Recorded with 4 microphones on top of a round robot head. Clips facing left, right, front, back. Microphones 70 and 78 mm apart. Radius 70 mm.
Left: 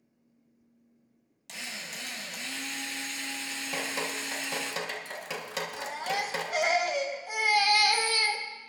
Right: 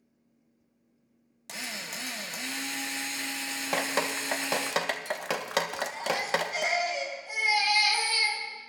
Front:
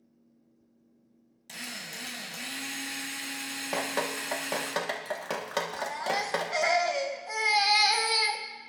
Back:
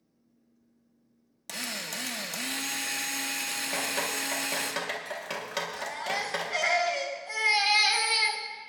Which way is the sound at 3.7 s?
60° right.